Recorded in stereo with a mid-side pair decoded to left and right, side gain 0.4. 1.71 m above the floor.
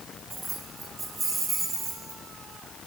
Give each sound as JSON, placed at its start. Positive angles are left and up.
{"t": 0.3, "sound": "keys jangling", "azimuth_deg": -35, "distance_m": 2.0}